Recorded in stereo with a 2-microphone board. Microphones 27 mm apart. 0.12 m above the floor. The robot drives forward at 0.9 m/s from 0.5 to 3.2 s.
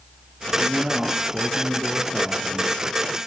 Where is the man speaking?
50° right (ahead or behind), 1.7 m; by 2.8 s 35° right (ahead or behind), 2 m.